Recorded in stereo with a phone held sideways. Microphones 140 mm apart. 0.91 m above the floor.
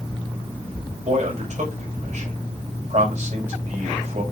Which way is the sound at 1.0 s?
60° right (ahead or behind).